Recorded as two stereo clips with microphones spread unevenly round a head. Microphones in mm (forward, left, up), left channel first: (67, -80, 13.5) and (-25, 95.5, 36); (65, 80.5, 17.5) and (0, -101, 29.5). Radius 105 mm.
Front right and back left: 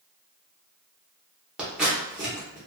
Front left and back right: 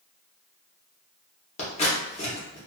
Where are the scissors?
50° left, 0.8 m.